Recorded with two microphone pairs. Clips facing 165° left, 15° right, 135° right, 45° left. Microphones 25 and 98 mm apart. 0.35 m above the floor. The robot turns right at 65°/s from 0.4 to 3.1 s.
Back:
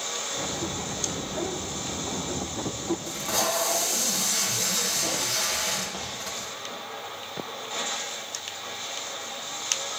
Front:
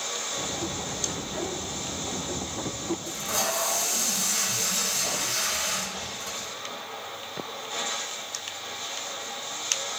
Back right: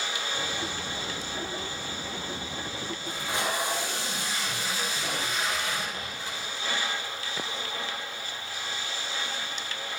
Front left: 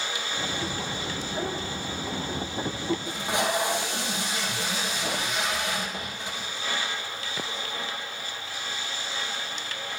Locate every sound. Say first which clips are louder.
3.1 s tape being pulled: back 2 dB, front left 4 dB; 115° left, 4 m